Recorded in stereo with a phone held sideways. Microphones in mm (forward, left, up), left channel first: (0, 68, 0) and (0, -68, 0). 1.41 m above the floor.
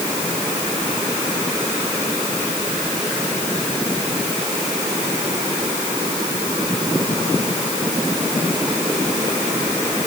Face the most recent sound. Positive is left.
No sound to turn to.